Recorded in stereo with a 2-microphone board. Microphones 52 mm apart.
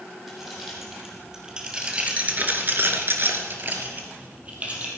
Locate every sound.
0.3 s keys jangling: 5° right (ahead or behind), 4 m; by 4.9 s 25° right (ahead or behind), 3.5 m